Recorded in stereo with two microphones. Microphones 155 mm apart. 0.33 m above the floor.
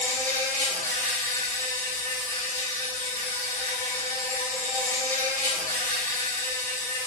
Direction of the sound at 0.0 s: 65° right (ahead or behind).